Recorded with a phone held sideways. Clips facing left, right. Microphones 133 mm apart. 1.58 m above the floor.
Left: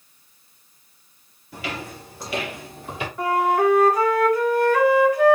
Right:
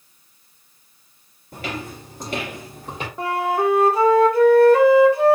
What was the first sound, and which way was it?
Footsteps, 50° right (ahead or behind).